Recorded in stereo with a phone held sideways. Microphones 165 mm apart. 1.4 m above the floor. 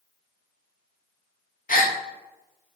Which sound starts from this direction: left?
A gasp, at 1.7 s.